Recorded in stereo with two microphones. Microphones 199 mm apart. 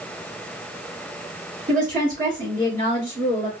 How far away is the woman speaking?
About 3 m.